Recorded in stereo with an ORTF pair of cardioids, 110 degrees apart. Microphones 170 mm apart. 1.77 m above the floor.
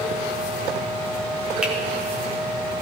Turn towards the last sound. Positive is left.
turn(degrees=-5)